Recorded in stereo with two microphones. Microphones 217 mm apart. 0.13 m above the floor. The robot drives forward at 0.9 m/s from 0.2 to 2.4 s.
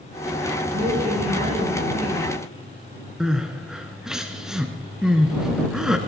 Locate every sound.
0.7 s a woman speaking: 40° right (ahead or behind), 4 m; by 2.3 s 30° right (ahead or behind), 5 m
3.2 s crying: 5° right (ahead or behind), 1.0 m